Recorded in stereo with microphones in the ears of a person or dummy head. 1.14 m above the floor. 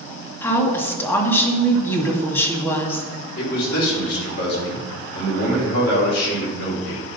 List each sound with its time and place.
0.4 s a woman speaking: 15° left (ahead or behind), 1.9 m
3.4 s a man speaking: 65° left (ahead or behind), 4 m